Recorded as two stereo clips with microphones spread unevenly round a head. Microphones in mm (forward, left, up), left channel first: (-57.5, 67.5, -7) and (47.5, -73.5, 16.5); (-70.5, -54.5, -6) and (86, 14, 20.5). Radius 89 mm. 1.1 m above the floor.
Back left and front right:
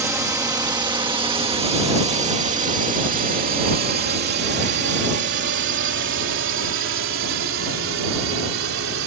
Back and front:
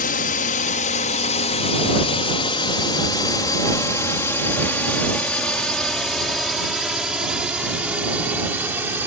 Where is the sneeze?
No sneeze in this recording.